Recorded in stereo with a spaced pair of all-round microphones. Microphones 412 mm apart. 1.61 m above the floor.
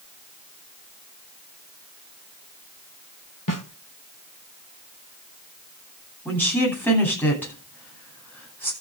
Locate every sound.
3.5 s a snare drum: 50° left (ahead or behind), 2 m
6.2 s a woman speaking: 5° left (ahead or behind), 10 m